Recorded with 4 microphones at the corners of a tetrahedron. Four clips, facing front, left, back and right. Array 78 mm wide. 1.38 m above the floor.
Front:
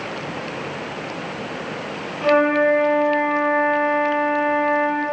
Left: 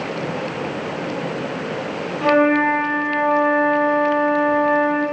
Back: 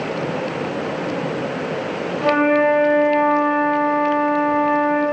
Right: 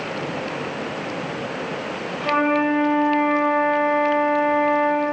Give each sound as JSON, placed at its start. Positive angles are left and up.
{"t": 2.2, "sound": "a flute", "azimuth_deg": 115, "distance_m": 1.9}